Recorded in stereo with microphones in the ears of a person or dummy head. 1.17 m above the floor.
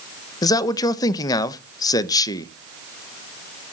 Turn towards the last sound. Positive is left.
turn(degrees=20)  # may be behind; listen again after turning